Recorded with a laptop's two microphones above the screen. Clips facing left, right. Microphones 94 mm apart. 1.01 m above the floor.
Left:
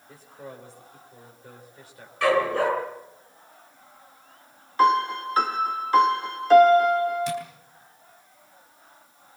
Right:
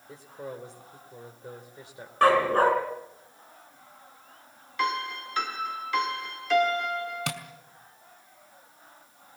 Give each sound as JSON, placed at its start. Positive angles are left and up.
{"t": 0.1, "sound": "a man speaking", "side_deg": -20, "distance_m": 3.0}
{"t": 2.2, "sound": "a dog barking", "side_deg": -40, "distance_m": 4.0}
{"t": 4.8, "sound": "a piano", "side_deg": 40, "distance_m": 1.3}
{"t": 7.3, "sound": "tapping", "side_deg": -80, "distance_m": 2.5}